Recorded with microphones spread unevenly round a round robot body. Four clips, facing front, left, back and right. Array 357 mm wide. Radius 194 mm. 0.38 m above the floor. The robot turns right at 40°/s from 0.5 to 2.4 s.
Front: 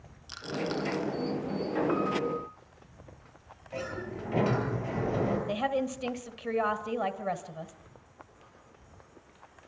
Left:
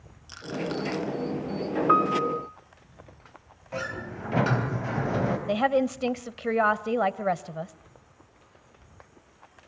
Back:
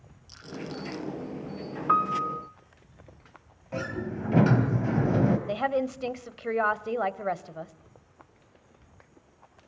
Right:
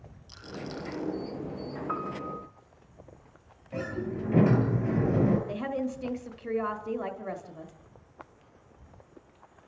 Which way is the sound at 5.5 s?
100° left.